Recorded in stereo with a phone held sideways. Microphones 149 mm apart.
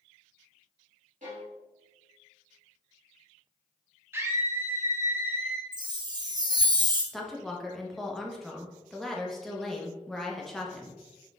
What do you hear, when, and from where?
1.2 s a violin: 60° right (ahead or behind), 2.0 m
4.1 s a scream: 15° right (ahead or behind), 1.1 m
5.7 s a chime: 30° right (ahead or behind), 0.8 m
7.1 s a woman speaking: centre (ahead or behind), 0.9 m